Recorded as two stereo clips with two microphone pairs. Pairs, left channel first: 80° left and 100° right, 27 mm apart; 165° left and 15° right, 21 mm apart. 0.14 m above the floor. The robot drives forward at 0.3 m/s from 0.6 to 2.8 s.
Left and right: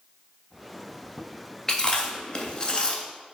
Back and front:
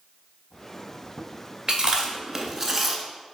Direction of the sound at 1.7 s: 30° left.